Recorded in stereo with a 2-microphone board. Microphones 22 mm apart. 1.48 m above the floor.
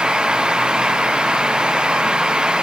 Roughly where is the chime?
I don't hear a chime.